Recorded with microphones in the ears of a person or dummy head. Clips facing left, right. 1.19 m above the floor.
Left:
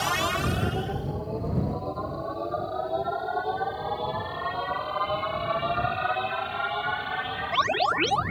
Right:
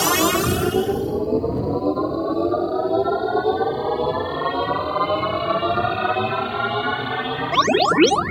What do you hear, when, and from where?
0.0 s a machine running: 60° right (ahead or behind)